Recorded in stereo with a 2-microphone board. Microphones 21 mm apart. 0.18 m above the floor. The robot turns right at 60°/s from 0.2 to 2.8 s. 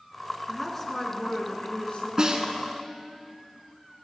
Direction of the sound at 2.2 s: 40° right (ahead or behind).